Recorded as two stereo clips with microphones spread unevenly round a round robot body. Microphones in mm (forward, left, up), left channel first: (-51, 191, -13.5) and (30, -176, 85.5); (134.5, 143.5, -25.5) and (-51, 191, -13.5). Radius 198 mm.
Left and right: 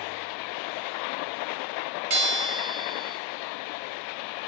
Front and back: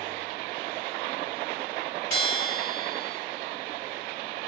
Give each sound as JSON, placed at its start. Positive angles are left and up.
{"t": 2.1, "sound": "a bell", "azimuth_deg": -75, "distance_m": 2.0}